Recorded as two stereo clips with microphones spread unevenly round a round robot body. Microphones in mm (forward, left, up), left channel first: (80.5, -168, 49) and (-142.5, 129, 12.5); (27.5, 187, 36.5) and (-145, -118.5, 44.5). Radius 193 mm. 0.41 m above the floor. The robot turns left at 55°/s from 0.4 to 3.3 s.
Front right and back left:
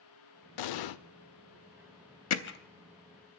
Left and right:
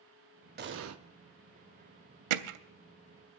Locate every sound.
0.6 s an explosion: 60° right, 0.6 m; by 1.0 s 80° right, 0.6 m
2.3 s hammering: 105° right, 0.7 m; by 2.6 s 120° right, 0.7 m